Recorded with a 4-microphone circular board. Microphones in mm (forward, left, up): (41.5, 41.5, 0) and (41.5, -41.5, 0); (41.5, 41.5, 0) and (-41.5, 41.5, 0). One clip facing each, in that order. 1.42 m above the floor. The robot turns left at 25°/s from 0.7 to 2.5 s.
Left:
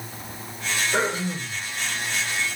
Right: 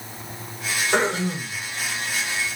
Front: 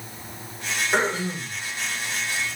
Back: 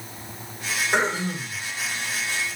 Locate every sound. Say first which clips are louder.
0.9 s throat clearing: right 4 dB, even; 95° right, 2 m; by 1.6 s 110° right, 2 m